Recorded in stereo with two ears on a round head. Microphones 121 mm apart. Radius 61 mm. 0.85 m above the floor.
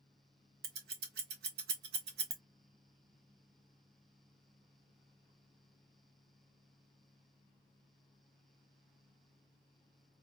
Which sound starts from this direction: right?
Scissors, at 0.6 s.